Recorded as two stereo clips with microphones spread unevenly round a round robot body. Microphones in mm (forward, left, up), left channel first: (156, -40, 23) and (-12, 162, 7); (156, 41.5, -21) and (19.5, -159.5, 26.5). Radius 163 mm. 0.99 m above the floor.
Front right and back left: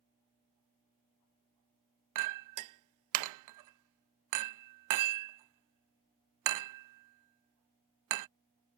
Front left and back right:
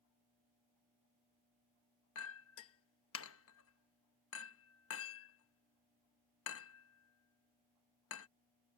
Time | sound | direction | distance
2.1 | a clink | 110° left | ?